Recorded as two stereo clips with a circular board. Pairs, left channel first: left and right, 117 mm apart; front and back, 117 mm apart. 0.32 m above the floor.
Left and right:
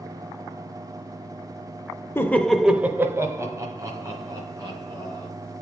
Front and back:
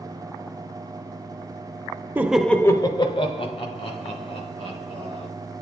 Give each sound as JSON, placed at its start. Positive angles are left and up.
{"t": 2.1, "sound": "laughter", "azimuth_deg": 130, "distance_m": 0.9}